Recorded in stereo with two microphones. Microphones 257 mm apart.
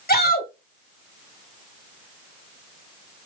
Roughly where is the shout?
Left.